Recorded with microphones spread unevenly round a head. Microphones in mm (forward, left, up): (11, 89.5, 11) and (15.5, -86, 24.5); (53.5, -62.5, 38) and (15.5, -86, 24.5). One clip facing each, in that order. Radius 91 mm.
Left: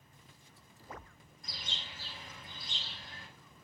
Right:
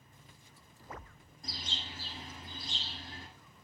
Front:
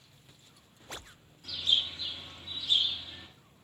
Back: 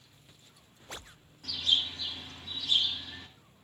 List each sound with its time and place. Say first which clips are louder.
1.4 s a bird: right 4 dB, even; 150° right, 7.5 m